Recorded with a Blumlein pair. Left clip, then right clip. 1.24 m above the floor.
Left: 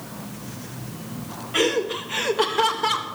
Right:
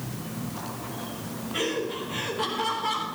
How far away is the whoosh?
No whoosh in this recording.